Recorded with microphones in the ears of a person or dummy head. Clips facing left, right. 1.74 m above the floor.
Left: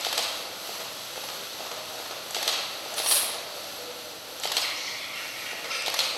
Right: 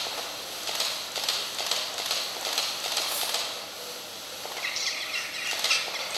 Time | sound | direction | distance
3.0 | cutlery clinking | 60° left (ahead or behind) | 2 m
4.6 | a bird | 70° right (ahead or behind) | 1.4 m